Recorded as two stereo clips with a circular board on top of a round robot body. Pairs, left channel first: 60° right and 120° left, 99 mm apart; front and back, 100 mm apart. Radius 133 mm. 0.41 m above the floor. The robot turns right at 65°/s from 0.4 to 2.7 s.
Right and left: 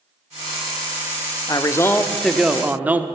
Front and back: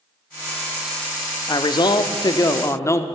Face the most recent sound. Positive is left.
turn(degrees=50)